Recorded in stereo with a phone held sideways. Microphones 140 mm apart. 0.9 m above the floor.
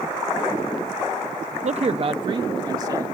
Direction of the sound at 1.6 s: 55° right (ahead or behind).